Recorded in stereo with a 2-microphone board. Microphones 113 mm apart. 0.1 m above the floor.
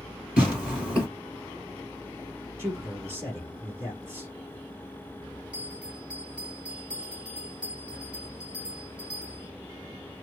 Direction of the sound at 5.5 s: 10° right (ahead or behind).